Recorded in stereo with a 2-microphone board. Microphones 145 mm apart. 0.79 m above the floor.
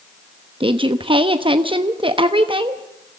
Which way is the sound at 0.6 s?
35° right (ahead or behind).